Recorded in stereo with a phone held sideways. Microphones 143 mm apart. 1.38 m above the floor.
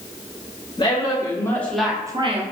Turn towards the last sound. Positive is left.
turn(degrees=-50)  # may be behind; listen again after turning